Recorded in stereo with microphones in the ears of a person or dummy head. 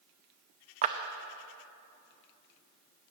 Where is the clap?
45° right (ahead or behind), 0.7 m.